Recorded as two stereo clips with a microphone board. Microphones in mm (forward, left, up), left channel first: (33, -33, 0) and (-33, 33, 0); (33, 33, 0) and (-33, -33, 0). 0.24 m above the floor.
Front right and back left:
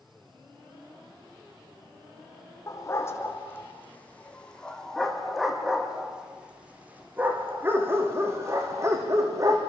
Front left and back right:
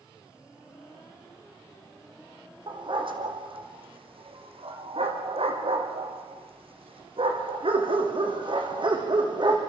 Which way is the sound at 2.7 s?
105° right.